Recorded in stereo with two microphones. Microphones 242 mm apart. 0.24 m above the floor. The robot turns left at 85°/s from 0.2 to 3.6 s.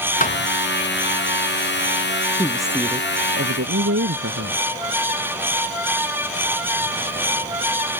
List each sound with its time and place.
0.2 s a thud: 35° left (ahead or behind); by 0.5 s 10° left (ahead or behind)
2.4 s a woman speaking: 20° left; by 4.6 s 85° right